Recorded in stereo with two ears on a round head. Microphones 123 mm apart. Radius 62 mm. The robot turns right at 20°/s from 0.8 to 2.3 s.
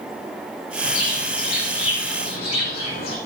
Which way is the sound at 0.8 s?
65° left (ahead or behind).